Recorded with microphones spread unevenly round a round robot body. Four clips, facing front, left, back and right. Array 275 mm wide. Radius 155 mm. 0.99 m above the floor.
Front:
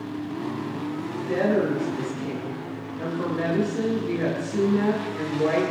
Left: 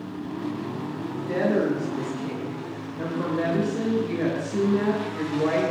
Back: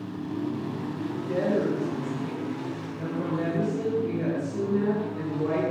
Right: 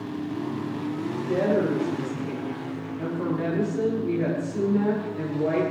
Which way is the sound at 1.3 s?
55° left.